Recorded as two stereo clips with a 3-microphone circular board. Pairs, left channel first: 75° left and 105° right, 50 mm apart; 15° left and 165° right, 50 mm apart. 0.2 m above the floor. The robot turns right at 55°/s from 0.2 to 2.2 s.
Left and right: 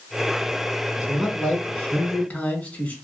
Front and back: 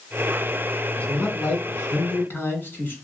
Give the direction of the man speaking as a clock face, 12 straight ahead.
1 o'clock.